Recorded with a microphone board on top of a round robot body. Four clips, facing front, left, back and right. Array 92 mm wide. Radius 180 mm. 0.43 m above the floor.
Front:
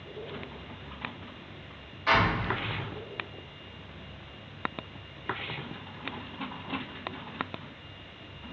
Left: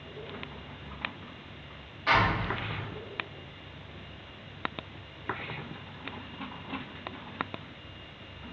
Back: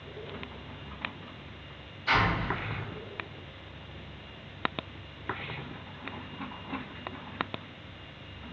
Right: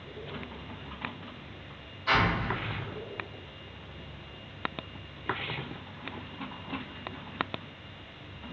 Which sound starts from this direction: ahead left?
An explosion, at 2.1 s.